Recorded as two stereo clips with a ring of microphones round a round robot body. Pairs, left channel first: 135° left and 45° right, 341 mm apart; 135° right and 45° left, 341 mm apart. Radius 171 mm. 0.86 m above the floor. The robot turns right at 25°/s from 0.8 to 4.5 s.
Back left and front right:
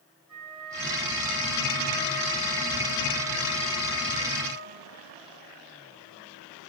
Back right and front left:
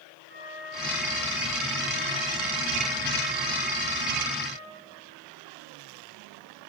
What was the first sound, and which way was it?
A flute, 15° right.